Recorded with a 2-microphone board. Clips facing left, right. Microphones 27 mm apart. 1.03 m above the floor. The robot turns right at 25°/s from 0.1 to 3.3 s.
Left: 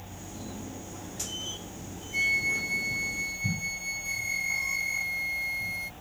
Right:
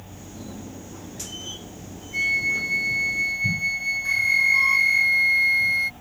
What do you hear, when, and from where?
2.1 s a flute: 10° right (ahead or behind); by 5.0 s 30° right (ahead or behind)
4.0 s a flute: 55° right (ahead or behind)